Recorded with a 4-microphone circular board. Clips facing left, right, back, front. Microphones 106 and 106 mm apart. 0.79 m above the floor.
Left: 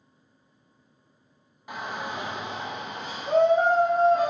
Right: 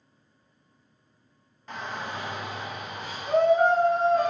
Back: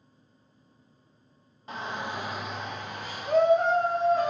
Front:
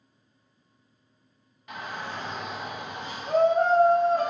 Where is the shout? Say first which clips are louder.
Left 1 dB, back 2 dB; 160° left, 0.8 m; by 4.3 s 25° left, 1.3 m.